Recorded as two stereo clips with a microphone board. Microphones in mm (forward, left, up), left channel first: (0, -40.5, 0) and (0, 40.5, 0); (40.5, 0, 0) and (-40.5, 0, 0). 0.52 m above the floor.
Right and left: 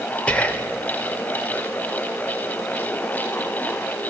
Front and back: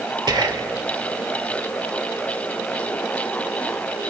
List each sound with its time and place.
0.3 s whispering: 160° right, 1.5 m